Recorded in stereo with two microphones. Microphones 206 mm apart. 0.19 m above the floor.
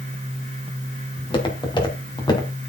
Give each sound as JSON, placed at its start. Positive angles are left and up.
{"t": 1.2, "sound": "footsteps", "side_deg": 25, "distance_m": 3.5}